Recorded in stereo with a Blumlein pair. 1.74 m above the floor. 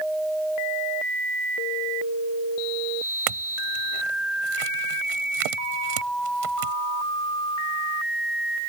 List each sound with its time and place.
3.3 s a clink: 45° right